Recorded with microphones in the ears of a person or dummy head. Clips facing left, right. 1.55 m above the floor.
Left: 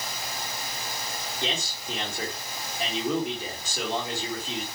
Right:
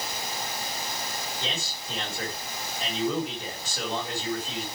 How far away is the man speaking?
About 2.5 m.